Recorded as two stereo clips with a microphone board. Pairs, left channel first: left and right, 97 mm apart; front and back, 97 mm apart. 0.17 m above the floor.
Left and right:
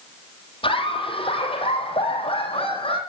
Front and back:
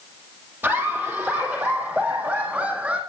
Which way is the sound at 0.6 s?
110° left.